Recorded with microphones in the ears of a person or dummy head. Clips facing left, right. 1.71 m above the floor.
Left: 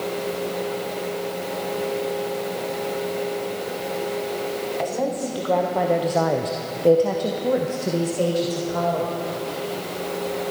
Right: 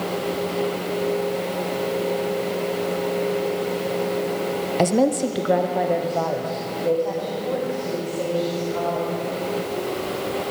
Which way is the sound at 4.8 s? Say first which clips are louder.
Right 8 dB; 45° right (ahead or behind).